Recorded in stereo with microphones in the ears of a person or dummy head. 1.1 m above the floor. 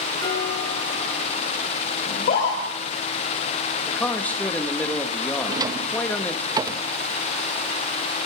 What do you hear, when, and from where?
0.2 s dishes clattering: 25° left (ahead or behind), 7.5 m
2.1 s a scream: 45° left (ahead or behind), 4 m
3.9 s a man speaking: 10° left (ahead or behind), 1.8 m
5.5 s a drawer: 20° right (ahead or behind), 0.6 m